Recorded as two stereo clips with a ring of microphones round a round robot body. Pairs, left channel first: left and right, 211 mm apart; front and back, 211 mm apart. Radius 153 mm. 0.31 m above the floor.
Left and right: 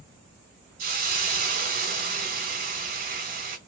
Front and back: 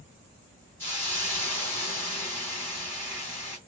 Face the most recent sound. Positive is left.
turn(degrees=-75)